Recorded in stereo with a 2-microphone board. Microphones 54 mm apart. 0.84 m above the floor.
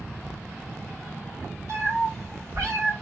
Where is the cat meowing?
65° right (ahead or behind), 1.4 m.